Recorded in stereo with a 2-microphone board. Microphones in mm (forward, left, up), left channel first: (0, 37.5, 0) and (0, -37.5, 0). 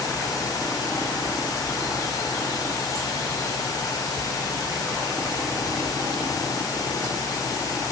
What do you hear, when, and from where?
Only background noise.